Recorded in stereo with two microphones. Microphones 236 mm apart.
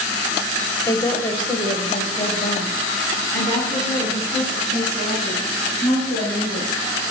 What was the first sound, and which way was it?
A woman speaking, 15° left (ahead or behind).